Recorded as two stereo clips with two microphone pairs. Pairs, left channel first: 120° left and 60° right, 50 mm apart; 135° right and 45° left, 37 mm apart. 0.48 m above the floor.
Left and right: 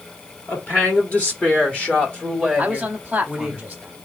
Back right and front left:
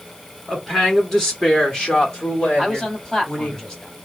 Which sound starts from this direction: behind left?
A woman speaking, at 0.5 s.